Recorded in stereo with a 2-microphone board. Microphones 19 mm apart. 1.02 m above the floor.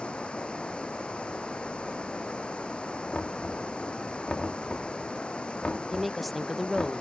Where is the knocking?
85° left.